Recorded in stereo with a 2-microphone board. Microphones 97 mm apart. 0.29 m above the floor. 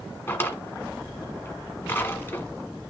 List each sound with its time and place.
0.3 s a drawer: 25° left (ahead or behind), 1.4 m